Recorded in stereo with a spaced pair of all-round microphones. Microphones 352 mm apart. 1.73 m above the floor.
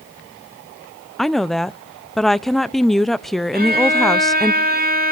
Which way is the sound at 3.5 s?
30° right (ahead or behind).